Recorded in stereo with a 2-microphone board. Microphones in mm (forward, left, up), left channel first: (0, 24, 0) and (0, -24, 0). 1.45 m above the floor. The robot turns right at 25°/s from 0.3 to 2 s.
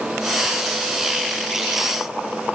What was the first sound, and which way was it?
Only background noise.